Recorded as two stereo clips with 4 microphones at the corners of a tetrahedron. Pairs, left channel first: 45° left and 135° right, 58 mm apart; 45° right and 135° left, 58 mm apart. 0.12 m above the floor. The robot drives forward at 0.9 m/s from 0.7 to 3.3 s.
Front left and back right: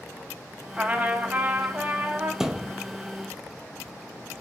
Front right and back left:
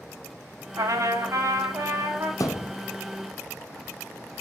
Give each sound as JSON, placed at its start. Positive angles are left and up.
{"t": 0.8, "sound": "a trumpet", "azimuth_deg": 150, "distance_m": 1.6}
{"t": 2.4, "sound": "a thud", "azimuth_deg": -55, "distance_m": 0.9}